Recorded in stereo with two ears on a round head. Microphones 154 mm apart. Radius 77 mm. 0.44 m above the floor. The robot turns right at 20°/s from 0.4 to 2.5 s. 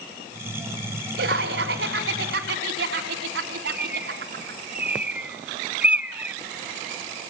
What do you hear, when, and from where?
1.2 s laughter: 70° right (ahead or behind), 4.5 m; by 4.6 s 75° right (ahead or behind), 4.5 m
3.7 s a bird: 10° right (ahead or behind), 0.6 m